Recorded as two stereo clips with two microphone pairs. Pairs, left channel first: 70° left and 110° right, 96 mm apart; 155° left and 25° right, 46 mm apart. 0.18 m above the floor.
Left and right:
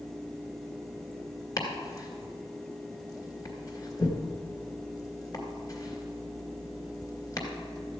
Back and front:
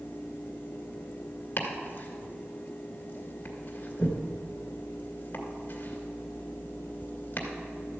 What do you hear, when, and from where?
1.6 s chopping: 110° left, 2 m